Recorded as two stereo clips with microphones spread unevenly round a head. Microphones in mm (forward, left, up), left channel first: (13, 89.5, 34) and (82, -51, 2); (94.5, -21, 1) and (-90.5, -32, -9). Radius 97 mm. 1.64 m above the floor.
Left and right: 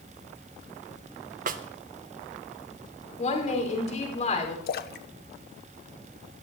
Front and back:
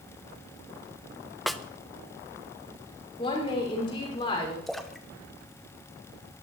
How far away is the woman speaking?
About 5.5 m.